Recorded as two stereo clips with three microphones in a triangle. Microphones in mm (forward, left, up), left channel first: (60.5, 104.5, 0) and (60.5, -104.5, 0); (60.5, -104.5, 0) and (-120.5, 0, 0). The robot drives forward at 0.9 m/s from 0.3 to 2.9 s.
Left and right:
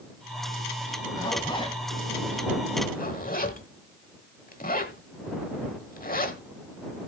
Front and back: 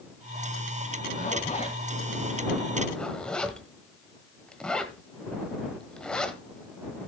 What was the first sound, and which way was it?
A zipper, 20° left.